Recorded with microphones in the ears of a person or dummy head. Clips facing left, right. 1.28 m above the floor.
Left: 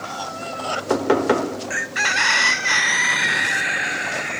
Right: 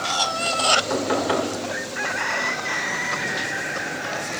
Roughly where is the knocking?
Left.